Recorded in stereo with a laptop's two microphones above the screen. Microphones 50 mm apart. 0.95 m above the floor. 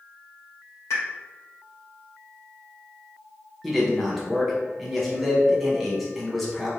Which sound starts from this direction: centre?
A man speaking, at 3.6 s.